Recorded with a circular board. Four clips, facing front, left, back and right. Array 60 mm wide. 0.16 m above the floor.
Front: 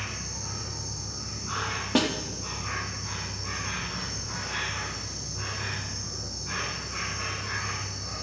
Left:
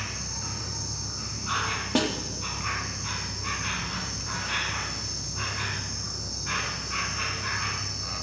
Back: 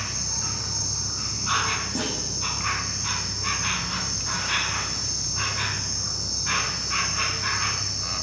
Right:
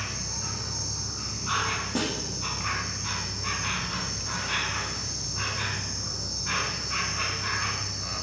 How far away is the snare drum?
About 3.5 m.